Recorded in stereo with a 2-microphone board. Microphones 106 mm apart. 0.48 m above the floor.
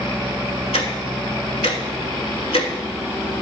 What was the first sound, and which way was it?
Ticking, 85° left.